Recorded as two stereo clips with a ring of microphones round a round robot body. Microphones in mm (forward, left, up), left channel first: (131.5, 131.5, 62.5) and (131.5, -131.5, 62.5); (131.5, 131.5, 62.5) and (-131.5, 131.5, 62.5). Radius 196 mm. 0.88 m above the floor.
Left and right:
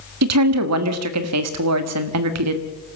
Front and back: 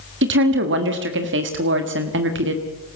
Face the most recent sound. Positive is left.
turn(degrees=-125)